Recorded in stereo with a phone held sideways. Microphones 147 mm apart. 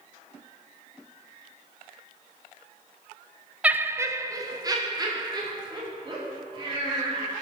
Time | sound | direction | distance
3.6 | laughter | 10° right (ahead or behind) | 0.8 m